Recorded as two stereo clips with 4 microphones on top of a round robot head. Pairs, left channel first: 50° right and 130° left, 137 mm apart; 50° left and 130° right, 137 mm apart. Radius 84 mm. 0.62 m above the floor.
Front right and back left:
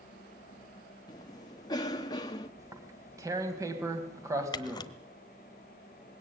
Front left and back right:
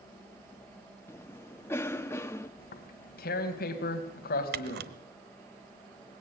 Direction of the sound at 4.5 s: 115° right.